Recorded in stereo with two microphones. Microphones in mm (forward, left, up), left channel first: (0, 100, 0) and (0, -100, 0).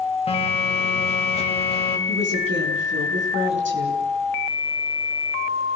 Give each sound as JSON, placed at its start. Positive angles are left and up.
{"t": 0.3, "sound": "a phone buzzing", "side_deg": 30, "distance_m": 3.0}
{"t": 2.1, "sound": "a woman speaking", "side_deg": -70, "distance_m": 6.5}